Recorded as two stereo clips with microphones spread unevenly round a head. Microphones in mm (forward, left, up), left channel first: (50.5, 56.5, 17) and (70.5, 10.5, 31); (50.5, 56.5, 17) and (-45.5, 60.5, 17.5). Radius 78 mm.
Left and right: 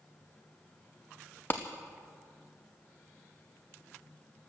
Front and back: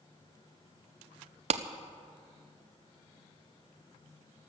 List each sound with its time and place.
1.5 s a clap: 165° right, 0.5 m